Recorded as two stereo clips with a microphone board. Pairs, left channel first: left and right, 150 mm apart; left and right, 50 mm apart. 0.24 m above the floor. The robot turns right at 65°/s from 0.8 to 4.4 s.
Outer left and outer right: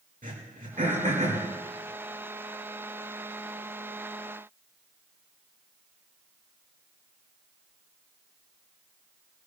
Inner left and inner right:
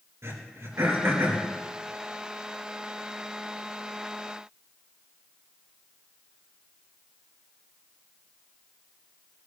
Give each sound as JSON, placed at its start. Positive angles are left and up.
{"t": 0.2, "sound": "throat clearing", "side_deg": -65, "distance_m": 5.0}